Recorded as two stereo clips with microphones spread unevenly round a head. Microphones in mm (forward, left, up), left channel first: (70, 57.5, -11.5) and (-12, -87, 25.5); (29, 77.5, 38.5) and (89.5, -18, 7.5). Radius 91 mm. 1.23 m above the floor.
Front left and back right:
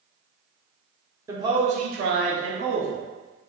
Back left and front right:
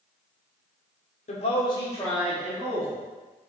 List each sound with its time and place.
1.3 s a man speaking: 160° left, 0.6 m; by 3.0 s 125° right, 0.9 m